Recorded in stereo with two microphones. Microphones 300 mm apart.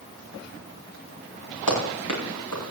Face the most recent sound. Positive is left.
turn(degrees=85)